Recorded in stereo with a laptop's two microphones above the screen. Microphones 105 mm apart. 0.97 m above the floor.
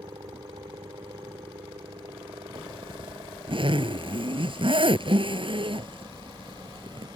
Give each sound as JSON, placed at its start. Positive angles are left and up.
{"t": 0.0, "sound": "a helicopter", "side_deg": -45}
{"t": 2.5, "sound": "a zipper", "side_deg": -55}